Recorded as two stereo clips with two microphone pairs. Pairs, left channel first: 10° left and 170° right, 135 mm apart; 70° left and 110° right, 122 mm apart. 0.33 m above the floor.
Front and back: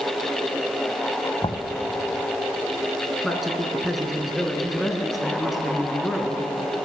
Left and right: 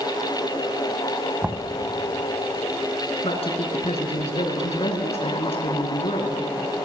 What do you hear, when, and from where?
1.4 s knocking: 35° right, 1.7 m
3.2 s a man speaking: 100° left, 4 m